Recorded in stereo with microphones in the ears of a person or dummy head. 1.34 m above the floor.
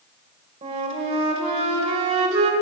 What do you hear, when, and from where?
0.6 s a flute: 40° right (ahead or behind), 1.6 m